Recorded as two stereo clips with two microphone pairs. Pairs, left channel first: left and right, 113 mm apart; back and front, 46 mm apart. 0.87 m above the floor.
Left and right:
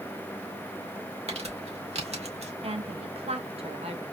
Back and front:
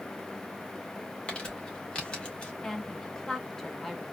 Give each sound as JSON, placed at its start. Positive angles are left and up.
{"t": 1.3, "sound": "crumpling", "azimuth_deg": -110, "distance_m": 2.0}
{"t": 2.6, "sound": "a woman speaking", "azimuth_deg": -100, "distance_m": 1.3}